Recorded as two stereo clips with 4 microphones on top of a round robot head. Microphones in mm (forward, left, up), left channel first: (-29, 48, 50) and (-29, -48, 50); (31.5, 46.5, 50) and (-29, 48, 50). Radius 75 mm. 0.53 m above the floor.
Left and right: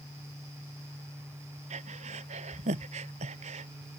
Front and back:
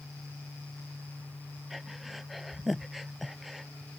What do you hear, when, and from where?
1.7 s breathing: 95° right